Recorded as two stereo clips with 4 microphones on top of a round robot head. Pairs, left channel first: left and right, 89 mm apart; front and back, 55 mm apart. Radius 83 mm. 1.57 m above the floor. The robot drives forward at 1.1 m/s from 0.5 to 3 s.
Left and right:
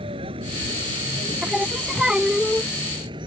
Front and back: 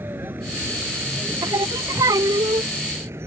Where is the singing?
170° right; by 2.7 s 175° right.